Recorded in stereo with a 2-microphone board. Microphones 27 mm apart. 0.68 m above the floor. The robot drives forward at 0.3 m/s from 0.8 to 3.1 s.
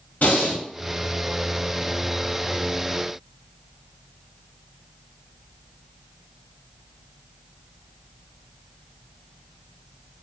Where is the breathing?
70° left (ahead or behind), 1.0 m.